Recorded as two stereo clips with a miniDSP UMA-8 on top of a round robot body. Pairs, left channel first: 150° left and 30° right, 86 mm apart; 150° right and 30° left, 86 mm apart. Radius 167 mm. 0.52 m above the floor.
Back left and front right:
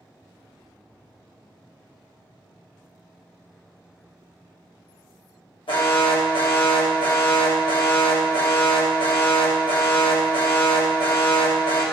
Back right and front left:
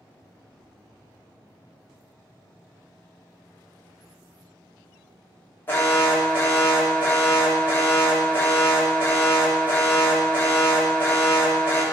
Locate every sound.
5.7 s an alarm: 145° left, 2 m